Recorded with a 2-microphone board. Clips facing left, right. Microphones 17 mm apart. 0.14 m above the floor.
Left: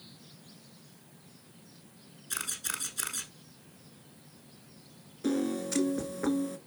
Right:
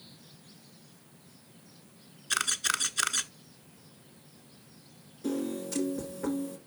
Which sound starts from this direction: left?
A piano, at 5.2 s.